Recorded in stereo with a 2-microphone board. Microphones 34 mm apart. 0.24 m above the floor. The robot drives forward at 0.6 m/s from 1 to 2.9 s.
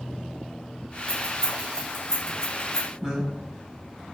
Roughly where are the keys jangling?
Centre.